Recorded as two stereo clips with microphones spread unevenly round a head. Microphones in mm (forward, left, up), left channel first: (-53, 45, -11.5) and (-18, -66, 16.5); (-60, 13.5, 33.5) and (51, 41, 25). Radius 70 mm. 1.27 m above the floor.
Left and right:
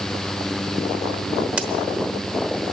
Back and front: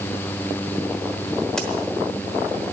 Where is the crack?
95° right, 1.0 m.